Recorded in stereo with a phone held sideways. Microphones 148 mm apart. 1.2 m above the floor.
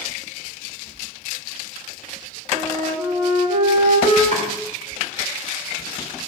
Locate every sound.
2.5 s a flute: 55° right (ahead or behind), 3.5 m
4.3 s chopping: 65° right (ahead or behind), 3.5 m